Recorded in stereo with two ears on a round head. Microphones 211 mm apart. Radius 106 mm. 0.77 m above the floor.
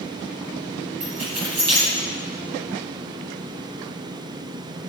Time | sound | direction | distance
1.0 | keys jangling | 85° right | 4 m